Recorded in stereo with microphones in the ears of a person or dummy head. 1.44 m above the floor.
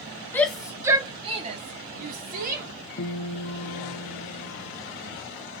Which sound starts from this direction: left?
A guitar, at 3.0 s.